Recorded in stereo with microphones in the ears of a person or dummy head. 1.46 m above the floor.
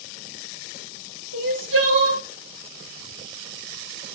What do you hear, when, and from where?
1.3 s crying: 75° right (ahead or behind), 7 m